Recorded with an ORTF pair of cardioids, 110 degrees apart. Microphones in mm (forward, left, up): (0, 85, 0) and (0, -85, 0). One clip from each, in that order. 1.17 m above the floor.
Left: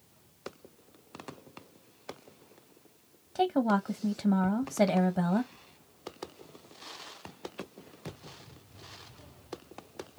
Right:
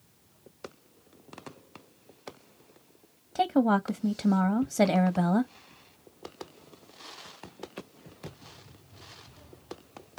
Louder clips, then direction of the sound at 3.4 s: Right 2 dB; 20° right.